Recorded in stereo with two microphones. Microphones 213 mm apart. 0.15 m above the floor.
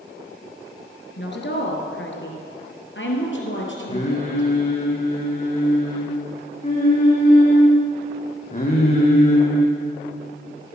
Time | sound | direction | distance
1.2 | a woman speaking | 55° left (ahead or behind) | 2.5 m
3.9 | singing | 30° left (ahead or behind) | 3 m